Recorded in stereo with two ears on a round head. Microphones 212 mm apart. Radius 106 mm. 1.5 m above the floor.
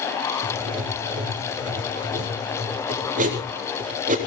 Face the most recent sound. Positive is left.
turn(degrees=-35)  # may be behind; listen again after turning